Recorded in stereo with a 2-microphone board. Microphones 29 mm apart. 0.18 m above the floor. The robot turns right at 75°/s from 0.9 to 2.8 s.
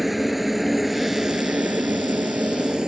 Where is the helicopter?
Centre (ahead or behind); by 2.9 s 30° right (ahead or behind).